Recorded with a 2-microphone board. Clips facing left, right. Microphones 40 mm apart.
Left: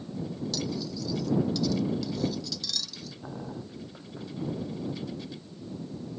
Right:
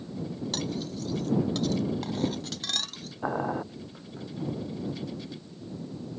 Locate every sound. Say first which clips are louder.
0.5 s cutlery clinking: right 1 dB; 50° right (ahead or behind)
3.2 s boiling: right 11 dB; 55° right (ahead or behind)